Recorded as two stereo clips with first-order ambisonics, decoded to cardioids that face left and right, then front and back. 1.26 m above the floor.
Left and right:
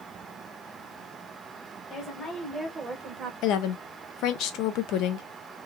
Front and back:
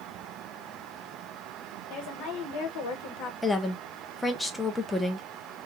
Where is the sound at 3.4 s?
85° left, 0.6 m.